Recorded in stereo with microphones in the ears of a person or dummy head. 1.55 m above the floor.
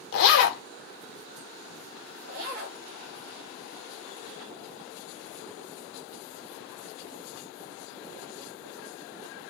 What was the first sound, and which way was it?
A zipper, 65° left (ahead or behind).